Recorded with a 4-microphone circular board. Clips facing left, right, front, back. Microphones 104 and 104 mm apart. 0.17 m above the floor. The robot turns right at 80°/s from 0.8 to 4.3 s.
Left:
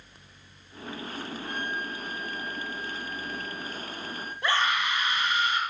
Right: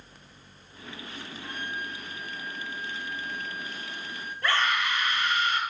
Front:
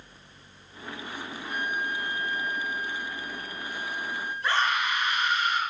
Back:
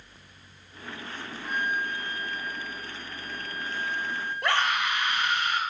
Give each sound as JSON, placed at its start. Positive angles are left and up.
{"t": 1.4, "sound": "a flute", "azimuth_deg": 180, "distance_m": 8.0}
{"t": 4.4, "sound": "a scream", "azimuth_deg": 160, "distance_m": 4.5}